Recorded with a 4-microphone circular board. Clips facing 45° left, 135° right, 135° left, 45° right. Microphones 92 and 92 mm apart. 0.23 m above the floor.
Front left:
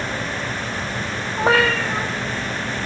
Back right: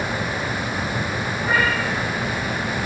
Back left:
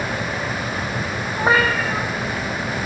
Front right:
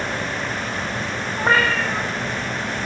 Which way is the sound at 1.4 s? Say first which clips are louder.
Front left 5 dB, back left 1 dB; 55° left.